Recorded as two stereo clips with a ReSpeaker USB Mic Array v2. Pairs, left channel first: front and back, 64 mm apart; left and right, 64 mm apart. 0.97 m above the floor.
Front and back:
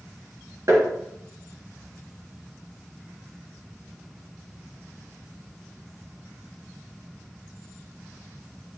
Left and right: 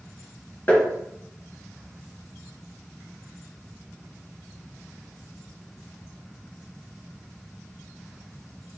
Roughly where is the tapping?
Behind left.